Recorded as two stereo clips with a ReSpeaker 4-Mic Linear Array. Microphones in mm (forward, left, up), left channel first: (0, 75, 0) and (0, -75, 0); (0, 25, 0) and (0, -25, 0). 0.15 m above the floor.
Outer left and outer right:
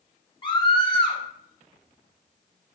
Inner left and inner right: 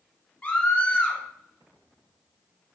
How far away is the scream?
About 2.0 m.